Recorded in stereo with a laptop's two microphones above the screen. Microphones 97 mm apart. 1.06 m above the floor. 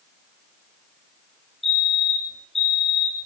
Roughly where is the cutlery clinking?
I don't hear cutlery clinking.